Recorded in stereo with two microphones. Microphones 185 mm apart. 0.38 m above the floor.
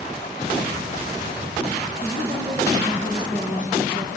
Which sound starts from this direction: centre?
A woman speaking, at 2.0 s.